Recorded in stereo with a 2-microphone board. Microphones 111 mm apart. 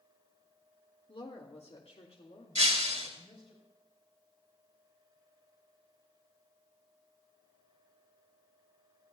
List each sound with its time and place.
1.1 s a woman speaking: 50° left (ahead or behind), 1.7 m; by 3.5 s 70° left (ahead or behind), 4.5 m
2.5 s breaking glass: 80° right, 3 m